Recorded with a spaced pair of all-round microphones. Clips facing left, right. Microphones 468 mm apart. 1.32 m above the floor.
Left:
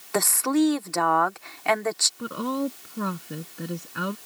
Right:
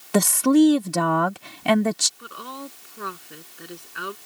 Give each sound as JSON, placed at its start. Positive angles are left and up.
{"t": 0.1, "sound": "a woman speaking", "side_deg": -50}
{"t": 2.2, "sound": "a woman speaking", "side_deg": 65}